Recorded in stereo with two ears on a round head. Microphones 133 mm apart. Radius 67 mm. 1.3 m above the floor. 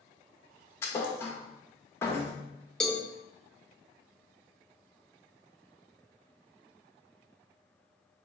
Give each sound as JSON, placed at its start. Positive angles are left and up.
{"t": 0.8, "sound": "a thud", "side_deg": 15, "distance_m": 0.6}
{"t": 2.8, "sound": "a cowbell", "side_deg": 5, "distance_m": 0.5}